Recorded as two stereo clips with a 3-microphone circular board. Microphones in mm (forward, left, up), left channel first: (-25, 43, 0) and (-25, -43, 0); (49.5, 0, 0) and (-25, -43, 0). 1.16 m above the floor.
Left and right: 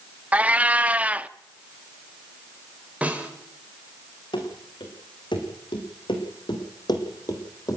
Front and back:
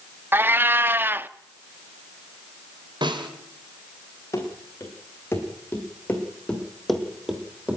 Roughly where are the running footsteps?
Left.